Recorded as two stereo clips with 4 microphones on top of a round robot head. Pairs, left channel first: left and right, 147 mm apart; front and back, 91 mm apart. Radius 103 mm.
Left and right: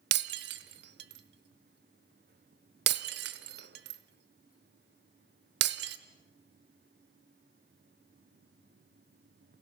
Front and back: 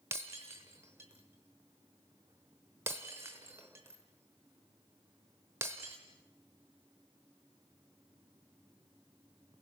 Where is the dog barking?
No dog barking in this recording.